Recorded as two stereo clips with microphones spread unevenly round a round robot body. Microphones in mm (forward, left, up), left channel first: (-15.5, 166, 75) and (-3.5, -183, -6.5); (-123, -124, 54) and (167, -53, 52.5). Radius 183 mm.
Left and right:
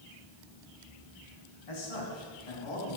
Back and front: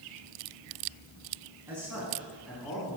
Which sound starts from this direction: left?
A man speaking, at 1.7 s.